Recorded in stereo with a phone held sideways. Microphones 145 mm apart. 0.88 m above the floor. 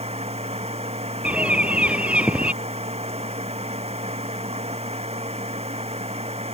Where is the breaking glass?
No breaking glass in this recording.